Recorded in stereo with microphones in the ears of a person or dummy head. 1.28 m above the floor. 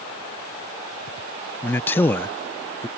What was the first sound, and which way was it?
A man speaking, 15° left (ahead or behind).